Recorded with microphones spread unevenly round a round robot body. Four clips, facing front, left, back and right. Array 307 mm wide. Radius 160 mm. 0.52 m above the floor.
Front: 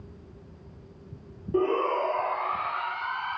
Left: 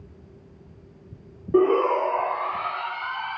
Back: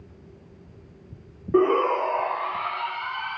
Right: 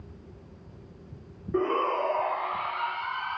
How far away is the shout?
About 1.6 m.